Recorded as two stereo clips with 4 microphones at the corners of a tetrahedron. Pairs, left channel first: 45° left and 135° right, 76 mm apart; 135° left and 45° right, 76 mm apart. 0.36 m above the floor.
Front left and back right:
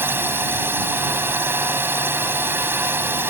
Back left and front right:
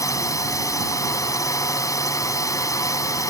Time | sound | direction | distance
0.0 | a drone | 170° left | ?